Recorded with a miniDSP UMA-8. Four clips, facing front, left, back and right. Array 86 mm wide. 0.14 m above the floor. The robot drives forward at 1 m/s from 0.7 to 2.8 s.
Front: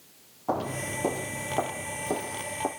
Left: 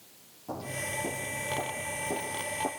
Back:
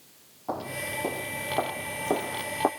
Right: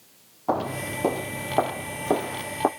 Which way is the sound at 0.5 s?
80° right.